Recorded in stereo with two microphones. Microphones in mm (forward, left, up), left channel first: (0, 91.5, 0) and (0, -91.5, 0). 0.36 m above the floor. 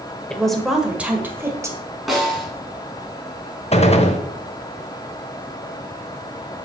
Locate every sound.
0.3 s a woman speaking: 5° left (ahead or behind), 1.6 m; by 1.8 s 15° right (ahead or behind), 1.8 m
2.1 s a snare drum: centre (ahead or behind), 3 m
3.7 s a gunshot: 35° left (ahead or behind), 1.0 m